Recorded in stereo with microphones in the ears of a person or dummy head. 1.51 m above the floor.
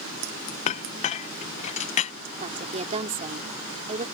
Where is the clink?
40° left (ahead or behind).